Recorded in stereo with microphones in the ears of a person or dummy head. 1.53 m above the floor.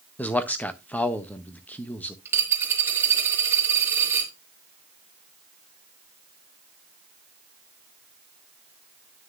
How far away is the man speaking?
About 0.6 m.